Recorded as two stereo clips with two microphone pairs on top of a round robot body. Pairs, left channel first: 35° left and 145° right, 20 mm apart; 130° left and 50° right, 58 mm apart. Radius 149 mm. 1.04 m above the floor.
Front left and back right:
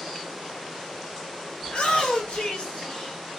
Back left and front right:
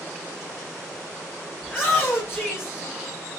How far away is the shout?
About 1.7 m.